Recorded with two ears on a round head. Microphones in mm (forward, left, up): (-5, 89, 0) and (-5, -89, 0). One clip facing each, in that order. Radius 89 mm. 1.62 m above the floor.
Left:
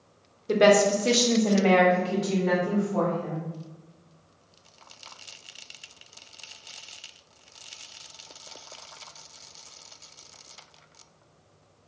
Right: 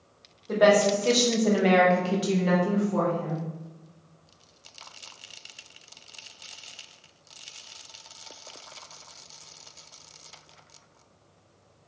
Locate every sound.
0.5 s a woman speaking: 35° left (ahead or behind), 0.9 m; by 3.4 s 65° right (ahead or behind), 1.5 m